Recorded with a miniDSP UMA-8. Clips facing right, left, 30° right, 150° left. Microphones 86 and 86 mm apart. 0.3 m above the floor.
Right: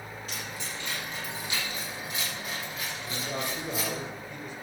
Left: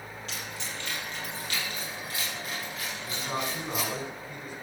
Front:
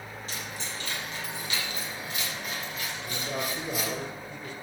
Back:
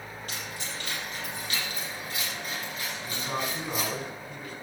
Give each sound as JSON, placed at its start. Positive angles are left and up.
{"t": 0.3, "sound": "keys jangling", "azimuth_deg": -175, "distance_m": 5.5}
{"t": 3.0, "sound": "a man speaking", "azimuth_deg": 135, "distance_m": 4.0}